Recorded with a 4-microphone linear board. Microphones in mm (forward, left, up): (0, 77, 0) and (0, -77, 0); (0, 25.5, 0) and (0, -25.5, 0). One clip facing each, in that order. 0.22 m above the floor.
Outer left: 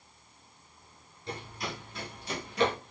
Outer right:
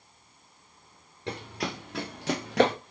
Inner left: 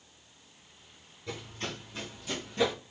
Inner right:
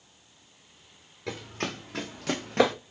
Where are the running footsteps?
85° right, 1.6 m; by 2.8 s 80° right, 0.8 m.